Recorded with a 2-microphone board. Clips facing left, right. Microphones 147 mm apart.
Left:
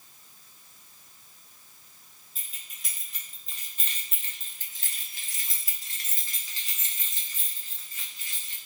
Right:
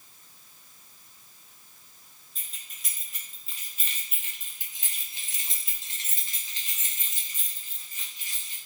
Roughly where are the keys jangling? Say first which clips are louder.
Even; centre.